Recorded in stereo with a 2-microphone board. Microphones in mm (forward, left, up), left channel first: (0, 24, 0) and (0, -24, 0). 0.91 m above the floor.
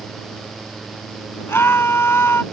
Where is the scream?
55° left (ahead or behind).